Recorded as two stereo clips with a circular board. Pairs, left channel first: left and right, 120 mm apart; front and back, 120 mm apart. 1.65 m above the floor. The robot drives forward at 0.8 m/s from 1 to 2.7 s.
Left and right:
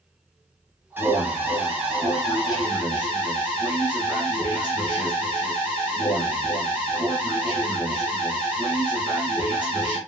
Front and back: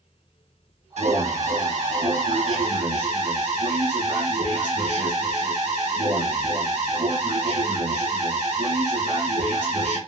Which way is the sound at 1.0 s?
165° right.